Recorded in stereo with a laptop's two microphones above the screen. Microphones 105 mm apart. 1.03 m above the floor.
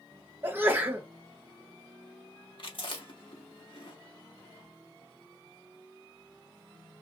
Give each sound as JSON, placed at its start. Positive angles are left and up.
{"t": 0.4, "sound": "a sneeze", "side_deg": -20, "distance_m": 0.8}
{"t": 2.6, "sound": "chewing", "side_deg": 60, "distance_m": 1.0}